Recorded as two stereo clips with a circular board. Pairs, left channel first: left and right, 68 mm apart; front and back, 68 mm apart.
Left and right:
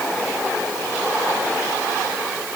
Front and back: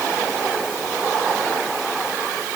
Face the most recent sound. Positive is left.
No sound to turn to.